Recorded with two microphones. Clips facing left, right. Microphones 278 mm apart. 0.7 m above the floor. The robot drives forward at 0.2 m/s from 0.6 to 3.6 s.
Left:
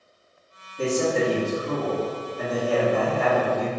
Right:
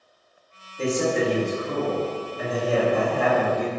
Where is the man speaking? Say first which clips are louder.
Even; 45° left (ahead or behind), 1.5 m; by 3.7 s 50° left (ahead or behind), 1.4 m.